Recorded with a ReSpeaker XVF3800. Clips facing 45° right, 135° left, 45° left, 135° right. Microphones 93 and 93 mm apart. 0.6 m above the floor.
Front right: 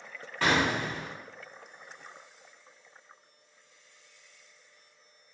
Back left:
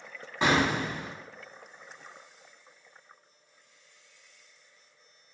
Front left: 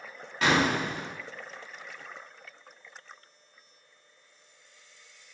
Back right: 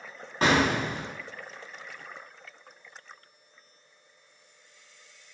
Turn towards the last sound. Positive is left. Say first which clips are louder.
# back left 1 dB, back right 1 dB
turn(degrees=-165)